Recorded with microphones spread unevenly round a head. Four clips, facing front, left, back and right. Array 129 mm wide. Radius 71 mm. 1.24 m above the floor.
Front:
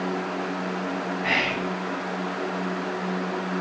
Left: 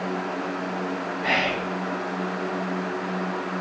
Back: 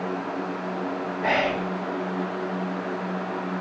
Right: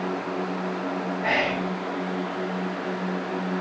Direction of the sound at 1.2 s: Straight behind.